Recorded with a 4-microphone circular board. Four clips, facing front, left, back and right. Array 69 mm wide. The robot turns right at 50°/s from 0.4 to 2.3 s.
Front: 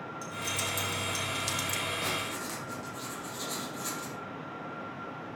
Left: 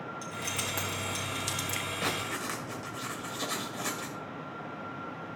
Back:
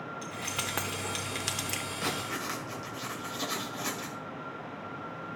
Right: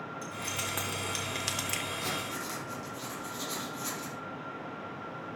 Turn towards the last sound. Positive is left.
turn(degrees=120)